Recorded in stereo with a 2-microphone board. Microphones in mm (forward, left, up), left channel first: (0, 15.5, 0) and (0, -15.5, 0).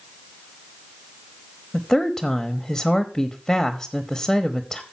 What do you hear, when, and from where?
1.7 s a woman speaking: 5° left (ahead or behind), 0.9 m